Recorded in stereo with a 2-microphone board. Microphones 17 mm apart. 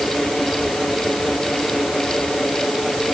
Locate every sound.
Only background noise.